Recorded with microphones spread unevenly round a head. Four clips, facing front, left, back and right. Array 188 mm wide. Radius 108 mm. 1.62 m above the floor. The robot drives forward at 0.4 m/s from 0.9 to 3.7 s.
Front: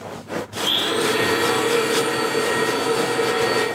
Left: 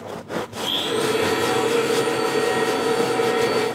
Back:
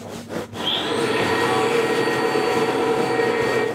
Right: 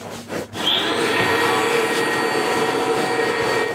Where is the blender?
80° right, 1.5 m; by 3.6 s 120° right, 1.7 m.